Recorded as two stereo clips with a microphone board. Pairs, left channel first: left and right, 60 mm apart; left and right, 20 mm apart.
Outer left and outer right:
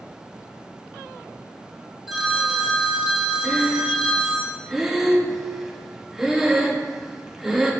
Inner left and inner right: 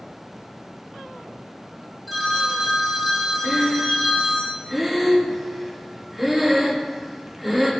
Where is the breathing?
5° right (ahead or behind), 0.8 m.